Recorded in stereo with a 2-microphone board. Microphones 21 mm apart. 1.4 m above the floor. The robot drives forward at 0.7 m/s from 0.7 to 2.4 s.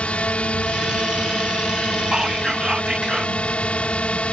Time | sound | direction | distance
0.0 | a drone | 60° left (ahead or behind) | ?
2.1 | whispering | 40° right (ahead or behind) | ?